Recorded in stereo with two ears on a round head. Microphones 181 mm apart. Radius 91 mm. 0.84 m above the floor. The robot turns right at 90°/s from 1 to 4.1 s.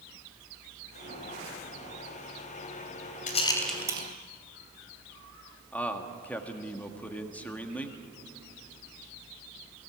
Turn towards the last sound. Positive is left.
turn(degrees=5)  # may be behind; listen again after turning